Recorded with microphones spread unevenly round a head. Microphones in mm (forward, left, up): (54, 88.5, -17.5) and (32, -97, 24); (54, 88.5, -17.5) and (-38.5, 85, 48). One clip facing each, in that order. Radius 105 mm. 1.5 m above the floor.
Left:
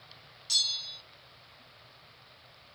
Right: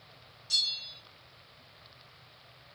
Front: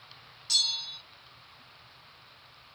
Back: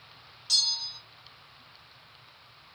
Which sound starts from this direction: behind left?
A bell, at 0.5 s.